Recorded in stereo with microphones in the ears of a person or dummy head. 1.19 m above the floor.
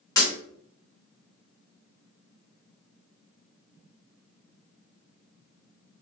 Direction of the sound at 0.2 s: 20° left (ahead or behind).